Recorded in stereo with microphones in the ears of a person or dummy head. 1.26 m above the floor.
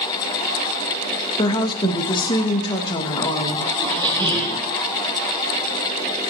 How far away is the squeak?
About 4 m.